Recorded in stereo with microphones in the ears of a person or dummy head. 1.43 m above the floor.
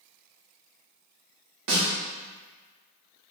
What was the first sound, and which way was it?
A snare drum, 70° right (ahead or behind).